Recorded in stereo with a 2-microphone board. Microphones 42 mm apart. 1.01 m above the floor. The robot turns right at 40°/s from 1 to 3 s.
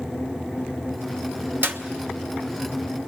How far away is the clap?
About 1.2 m.